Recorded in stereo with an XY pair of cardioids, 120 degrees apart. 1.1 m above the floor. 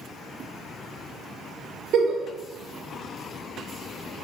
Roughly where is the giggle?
Ahead right.